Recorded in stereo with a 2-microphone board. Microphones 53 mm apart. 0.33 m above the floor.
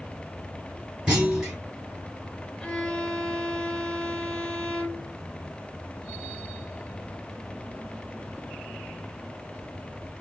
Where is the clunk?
15° right (ahead or behind), 3 m.